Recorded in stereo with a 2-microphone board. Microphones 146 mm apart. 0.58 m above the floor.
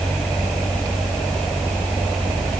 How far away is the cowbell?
No cowbell in this recording.